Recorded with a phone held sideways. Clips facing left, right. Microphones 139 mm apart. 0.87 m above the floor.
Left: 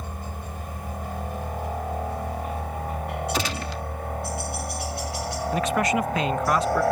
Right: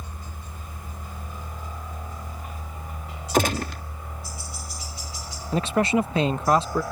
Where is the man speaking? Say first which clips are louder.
Right 2 dB; 30° right (ahead or behind).